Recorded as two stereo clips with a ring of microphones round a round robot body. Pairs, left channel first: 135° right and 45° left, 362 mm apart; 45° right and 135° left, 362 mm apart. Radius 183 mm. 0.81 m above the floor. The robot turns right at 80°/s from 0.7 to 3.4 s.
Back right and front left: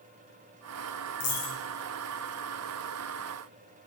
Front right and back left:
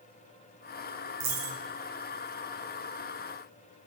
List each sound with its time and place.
1.2 s a dropped coin: 160° left, 3 m; by 1.6 s 170° right, 3 m